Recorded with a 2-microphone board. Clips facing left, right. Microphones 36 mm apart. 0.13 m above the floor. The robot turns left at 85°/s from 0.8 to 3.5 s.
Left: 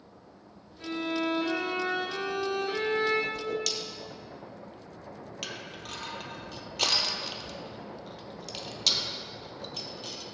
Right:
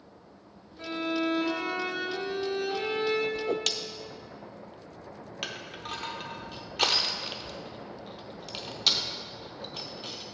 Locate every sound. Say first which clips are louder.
0.8 s a violin: right 1 dB; 120° right, 2.5 m; by 3.2 s 30° left, 2.5 m
3.3 s a whoosh: right 3 dB; 35° right (ahead or behind), 0.6 m; by 3.7 s 45° right (ahead or behind), 0.6 m
5.4 s crushing: right 3 dB; 15° right (ahead or behind), 0.9 m